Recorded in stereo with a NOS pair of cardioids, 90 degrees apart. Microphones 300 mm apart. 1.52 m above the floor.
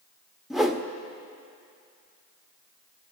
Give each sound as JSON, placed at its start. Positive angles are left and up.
{"t": 0.5, "sound": "a whoosh", "azimuth_deg": 0, "distance_m": 0.8}